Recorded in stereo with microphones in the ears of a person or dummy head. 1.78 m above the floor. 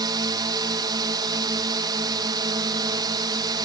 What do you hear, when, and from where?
0.0 s a drone: 20° right (ahead or behind)